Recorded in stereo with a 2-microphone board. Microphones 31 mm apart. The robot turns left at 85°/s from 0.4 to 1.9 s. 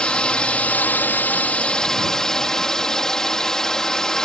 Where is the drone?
145° left; by 4.2 s 15° left.